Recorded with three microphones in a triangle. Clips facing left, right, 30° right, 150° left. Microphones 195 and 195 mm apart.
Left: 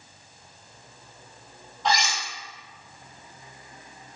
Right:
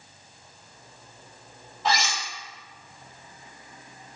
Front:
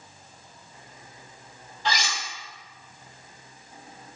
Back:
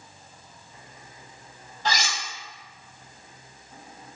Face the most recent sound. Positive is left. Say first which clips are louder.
# left 1 dB, back 1 dB
turn(degrees=-175)